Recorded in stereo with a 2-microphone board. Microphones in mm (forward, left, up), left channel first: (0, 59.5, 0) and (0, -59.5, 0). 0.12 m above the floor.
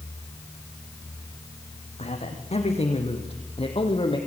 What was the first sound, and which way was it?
A man speaking, 70° left (ahead or behind).